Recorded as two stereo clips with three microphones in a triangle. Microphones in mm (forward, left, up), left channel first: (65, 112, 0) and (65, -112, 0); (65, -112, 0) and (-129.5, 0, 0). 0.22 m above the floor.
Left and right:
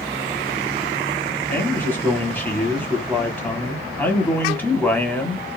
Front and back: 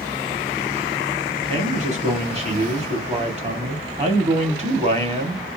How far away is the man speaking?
About 1.1 m.